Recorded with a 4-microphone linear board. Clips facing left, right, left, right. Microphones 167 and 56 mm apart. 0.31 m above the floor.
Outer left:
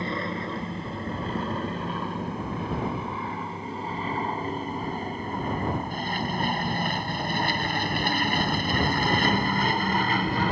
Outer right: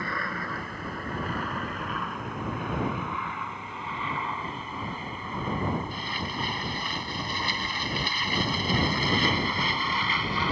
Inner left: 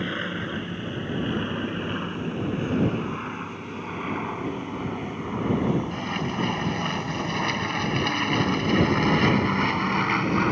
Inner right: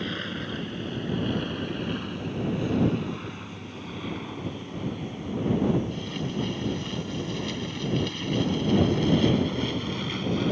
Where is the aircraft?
20° left (ahead or behind); by 10.5 s 50° left (ahead or behind).